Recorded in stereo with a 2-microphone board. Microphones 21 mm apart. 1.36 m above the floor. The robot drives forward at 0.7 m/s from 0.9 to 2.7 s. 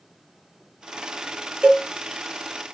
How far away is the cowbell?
About 1.1 m.